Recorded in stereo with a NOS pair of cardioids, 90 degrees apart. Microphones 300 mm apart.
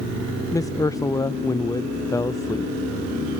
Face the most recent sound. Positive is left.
turn(degrees=10)